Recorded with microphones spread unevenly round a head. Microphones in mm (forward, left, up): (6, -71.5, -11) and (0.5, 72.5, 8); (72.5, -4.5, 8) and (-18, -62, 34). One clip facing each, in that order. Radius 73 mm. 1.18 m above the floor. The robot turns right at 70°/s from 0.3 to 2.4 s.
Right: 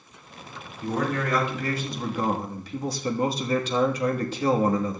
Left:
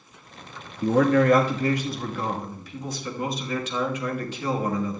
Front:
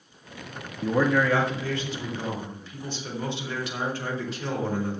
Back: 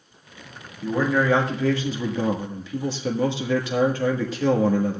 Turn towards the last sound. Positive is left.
turn(degrees=-150)